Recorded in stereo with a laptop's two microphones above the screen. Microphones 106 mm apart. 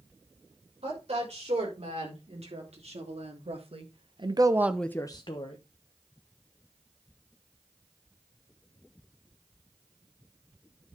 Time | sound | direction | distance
0.8 | a woman speaking | 80° right | 5.5 m